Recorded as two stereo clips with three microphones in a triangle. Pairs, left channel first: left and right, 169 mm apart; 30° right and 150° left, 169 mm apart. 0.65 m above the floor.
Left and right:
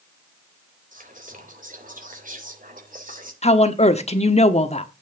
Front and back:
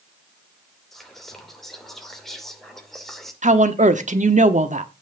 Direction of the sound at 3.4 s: 125° left.